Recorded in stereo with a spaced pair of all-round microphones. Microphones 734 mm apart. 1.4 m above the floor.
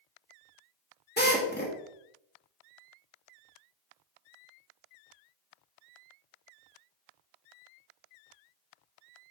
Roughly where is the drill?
Centre.